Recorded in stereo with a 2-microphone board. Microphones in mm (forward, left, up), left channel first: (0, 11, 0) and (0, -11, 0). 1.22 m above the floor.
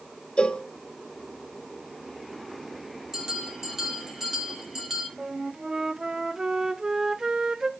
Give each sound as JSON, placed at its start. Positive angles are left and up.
{"t": 0.4, "sound": "a cowbell", "side_deg": 50, "distance_m": 0.5}
{"t": 3.1, "sound": "a bell", "side_deg": -20, "distance_m": 3.5}
{"t": 5.2, "sound": "a flute", "side_deg": -25, "distance_m": 0.6}